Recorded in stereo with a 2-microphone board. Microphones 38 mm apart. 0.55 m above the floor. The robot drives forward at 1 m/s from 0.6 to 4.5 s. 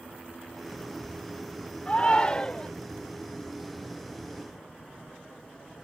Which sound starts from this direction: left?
A shout, at 1.9 s.